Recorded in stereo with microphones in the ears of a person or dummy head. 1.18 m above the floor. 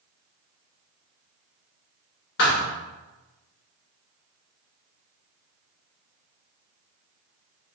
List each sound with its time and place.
2.4 s a thud: 45° left (ahead or behind), 0.6 m